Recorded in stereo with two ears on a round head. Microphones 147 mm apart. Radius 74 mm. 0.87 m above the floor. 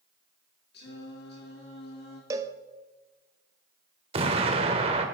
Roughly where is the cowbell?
Centre.